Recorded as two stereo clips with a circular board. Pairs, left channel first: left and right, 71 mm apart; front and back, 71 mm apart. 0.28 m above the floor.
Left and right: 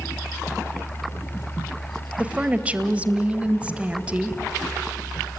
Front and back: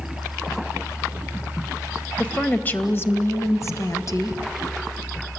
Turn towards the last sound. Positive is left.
turn(degrees=-15)